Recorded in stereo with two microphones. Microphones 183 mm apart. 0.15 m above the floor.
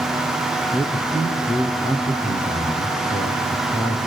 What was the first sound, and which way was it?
A man speaking, 20° left (ahead or behind).